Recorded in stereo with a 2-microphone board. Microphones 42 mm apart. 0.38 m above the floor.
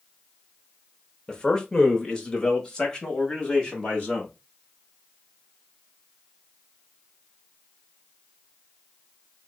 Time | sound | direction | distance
1.3 | a man speaking | 20° left (ahead or behind) | 0.9 m